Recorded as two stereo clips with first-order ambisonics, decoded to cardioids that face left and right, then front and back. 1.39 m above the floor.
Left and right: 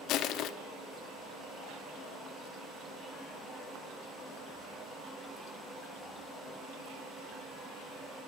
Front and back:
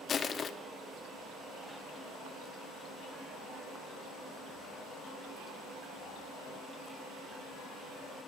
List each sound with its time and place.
0.1 s crushing: 60° left, 0.5 m